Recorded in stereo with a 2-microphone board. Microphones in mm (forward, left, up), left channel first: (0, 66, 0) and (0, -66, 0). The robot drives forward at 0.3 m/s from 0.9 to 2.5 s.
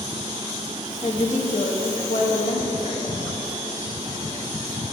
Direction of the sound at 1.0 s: 55° left (ahead or behind).